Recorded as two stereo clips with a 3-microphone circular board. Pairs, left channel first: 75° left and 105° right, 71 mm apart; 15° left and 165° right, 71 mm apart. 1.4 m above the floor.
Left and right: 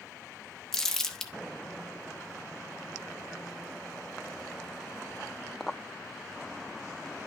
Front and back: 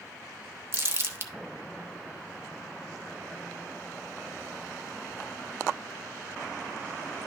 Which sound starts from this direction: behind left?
Crumpling, at 0.7 s.